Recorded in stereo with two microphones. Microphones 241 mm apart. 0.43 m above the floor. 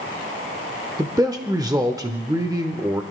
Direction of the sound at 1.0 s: 15° right (ahead or behind).